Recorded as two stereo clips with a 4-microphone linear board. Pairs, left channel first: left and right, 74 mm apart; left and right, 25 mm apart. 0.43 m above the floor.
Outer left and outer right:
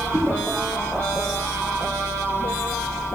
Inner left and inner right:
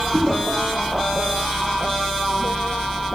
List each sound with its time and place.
0.1 s a whoosh: 5° right (ahead or behind), 3.5 m